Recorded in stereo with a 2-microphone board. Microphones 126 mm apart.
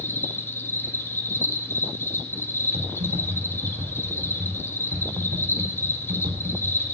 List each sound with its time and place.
0.0 s an insect: 20° left (ahead or behind), 2.0 m
2.7 s typing on a keyboard: 75° right (ahead or behind), 3.5 m